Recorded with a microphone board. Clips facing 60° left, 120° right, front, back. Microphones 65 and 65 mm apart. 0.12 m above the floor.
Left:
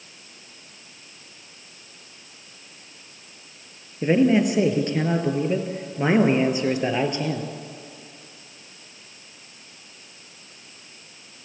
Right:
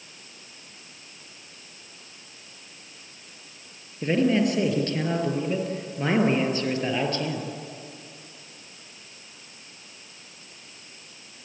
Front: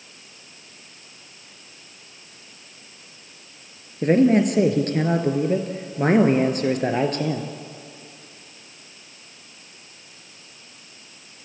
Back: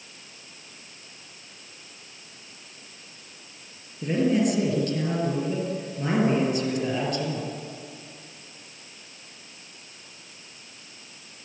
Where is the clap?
I don't hear a clap.